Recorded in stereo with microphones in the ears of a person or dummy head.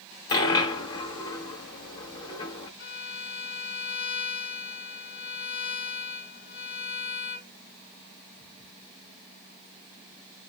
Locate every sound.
0.3 s a dropped coin: 25° left (ahead or behind), 1.0 m
2.8 s a violin: 70° left (ahead or behind), 1.6 m